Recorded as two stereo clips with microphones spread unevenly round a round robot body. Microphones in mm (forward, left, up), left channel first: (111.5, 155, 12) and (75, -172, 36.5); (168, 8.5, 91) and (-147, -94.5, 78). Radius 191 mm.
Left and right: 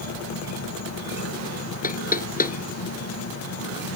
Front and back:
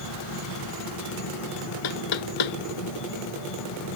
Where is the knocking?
20° left.